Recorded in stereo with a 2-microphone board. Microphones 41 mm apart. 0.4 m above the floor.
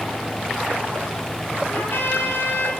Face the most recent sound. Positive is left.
turn(degrees=65)  # may be behind; listen again after turning